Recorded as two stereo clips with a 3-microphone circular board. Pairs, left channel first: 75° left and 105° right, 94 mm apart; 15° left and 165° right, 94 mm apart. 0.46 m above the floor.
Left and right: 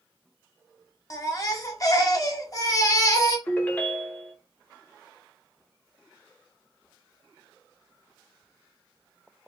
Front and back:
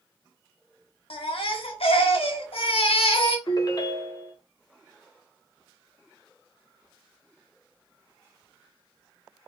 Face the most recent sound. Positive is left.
turn(degrees=10)